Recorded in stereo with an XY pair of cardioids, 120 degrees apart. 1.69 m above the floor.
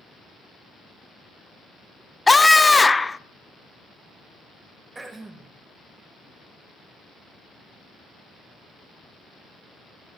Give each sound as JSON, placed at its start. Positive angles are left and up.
{"t": 2.3, "sound": "a scream", "azimuth_deg": 15, "distance_m": 0.6}
{"t": 5.0, "sound": "throat clearing", "azimuth_deg": -20, "distance_m": 2.0}